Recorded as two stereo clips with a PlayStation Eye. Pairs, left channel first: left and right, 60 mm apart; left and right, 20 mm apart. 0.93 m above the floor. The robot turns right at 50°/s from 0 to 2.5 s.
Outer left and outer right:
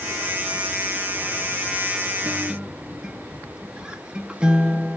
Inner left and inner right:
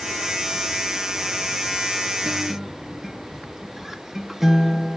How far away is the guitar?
About 0.5 m.